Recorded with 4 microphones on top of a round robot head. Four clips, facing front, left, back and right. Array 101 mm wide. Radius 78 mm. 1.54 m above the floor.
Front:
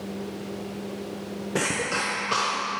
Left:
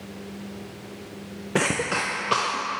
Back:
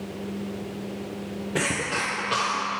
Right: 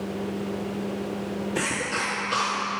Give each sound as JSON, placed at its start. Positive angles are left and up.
{"t": 1.6, "sound": "a cough", "azimuth_deg": 80, "distance_m": 0.6}